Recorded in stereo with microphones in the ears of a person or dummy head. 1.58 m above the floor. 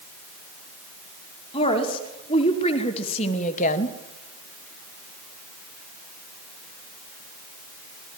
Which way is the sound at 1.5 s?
30° left (ahead or behind).